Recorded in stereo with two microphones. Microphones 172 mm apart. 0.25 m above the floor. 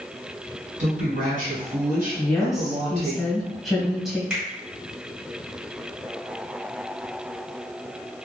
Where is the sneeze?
I don't hear a sneeze.